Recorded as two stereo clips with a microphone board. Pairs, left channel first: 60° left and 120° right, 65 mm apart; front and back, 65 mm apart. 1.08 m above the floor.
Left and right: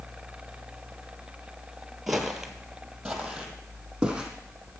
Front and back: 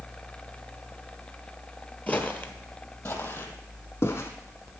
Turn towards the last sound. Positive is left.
turn(degrees=-40)